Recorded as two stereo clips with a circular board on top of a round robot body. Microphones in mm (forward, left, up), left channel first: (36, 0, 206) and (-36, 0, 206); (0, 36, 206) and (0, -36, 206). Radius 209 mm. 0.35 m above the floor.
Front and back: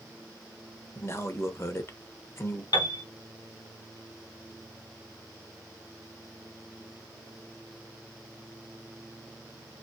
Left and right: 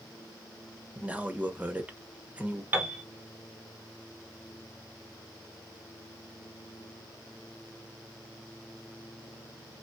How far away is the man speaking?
About 1.1 m.